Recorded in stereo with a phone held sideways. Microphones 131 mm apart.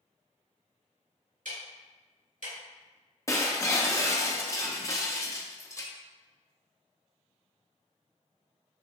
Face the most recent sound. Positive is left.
turn(degrees=25)  # may be behind; listen again after turning